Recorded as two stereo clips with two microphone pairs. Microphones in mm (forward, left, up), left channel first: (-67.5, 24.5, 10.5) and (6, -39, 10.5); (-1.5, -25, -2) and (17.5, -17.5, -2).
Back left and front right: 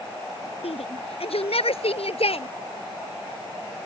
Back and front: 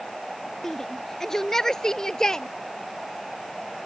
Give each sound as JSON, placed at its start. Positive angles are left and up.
{"t": 0.6, "sound": "a shout", "azimuth_deg": 135}